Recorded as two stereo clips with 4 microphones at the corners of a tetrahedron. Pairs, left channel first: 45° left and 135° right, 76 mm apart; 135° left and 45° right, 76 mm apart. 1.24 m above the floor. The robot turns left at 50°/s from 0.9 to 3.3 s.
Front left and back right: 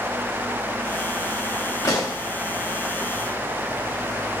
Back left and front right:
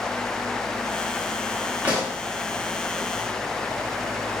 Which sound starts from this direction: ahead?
A pop, at 1.8 s.